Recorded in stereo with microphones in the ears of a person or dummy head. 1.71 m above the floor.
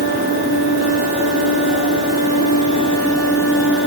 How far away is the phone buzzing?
I don't hear a phone buzzing.